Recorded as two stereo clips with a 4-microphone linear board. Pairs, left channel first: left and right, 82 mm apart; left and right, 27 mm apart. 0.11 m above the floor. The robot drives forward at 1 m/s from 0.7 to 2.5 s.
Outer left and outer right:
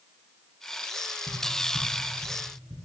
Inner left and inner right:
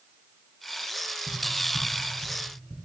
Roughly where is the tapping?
Centre.